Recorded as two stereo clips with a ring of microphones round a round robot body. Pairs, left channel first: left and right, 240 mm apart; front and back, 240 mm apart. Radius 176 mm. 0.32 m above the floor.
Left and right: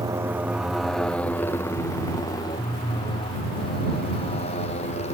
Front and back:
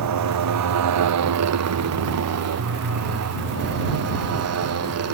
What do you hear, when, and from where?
0.0 s a motorcycle: 170° right; by 5.2 s 160° left